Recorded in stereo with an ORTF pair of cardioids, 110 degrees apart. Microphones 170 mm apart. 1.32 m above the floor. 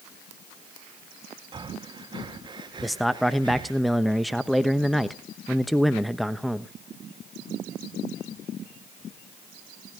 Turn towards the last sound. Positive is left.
turn(degrees=0)